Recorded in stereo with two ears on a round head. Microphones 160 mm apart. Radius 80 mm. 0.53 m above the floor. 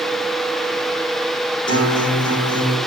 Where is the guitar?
25° left (ahead or behind), 7 m.